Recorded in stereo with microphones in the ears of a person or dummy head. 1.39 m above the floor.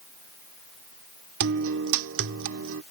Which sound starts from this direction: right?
A guitar, at 1.4 s.